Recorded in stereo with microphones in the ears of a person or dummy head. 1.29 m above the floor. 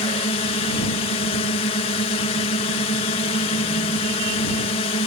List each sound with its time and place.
0.0 s a drone: 35° left (ahead or behind)